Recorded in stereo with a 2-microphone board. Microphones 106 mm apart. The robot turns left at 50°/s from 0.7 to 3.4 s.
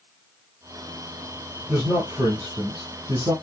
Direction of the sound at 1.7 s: 15° right.